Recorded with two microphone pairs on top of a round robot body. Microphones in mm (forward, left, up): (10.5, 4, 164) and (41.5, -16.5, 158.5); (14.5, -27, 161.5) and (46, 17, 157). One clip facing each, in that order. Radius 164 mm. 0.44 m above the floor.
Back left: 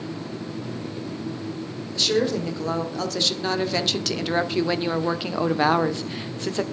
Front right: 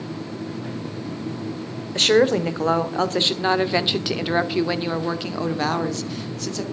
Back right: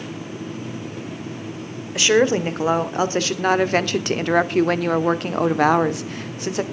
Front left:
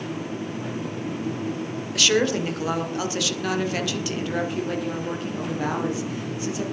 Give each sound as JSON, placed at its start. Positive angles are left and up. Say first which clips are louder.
{"t": 1.9, "sound": "a woman speaking", "louder": "front right 6 dB, back right 5 dB", "azimuth_deg": -60, "distance_m": 2.0}